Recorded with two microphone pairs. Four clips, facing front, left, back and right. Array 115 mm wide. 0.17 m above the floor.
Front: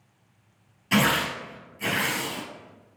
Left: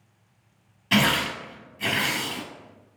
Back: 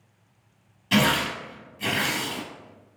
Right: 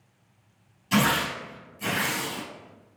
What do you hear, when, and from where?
0.9 s tearing paper: 65° left, 2 m